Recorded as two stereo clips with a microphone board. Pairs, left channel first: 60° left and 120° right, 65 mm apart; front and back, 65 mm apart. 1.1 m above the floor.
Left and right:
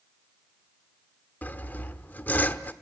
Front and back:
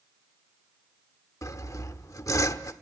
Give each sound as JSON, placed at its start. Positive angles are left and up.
{"t": 1.4, "sound": "sawing", "azimuth_deg": 5, "distance_m": 1.0}